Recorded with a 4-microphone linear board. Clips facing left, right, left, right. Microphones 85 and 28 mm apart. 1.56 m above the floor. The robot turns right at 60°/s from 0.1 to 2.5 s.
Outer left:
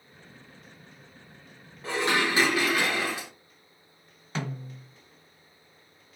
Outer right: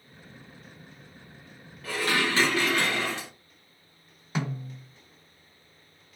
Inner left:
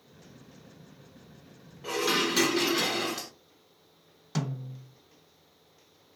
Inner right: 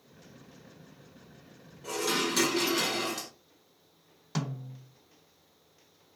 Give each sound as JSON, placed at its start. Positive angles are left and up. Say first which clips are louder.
{"t": 1.8, "sound": "dishes clattering", "louder": "outer left 1 dB, inner left 3 dB", "azimuth_deg": 125, "distance_m": 0.6}
{"t": 4.3, "sound": "a snare drum", "louder": "outer right 2 dB, inner left 2 dB", "side_deg": -10, "distance_m": 0.9}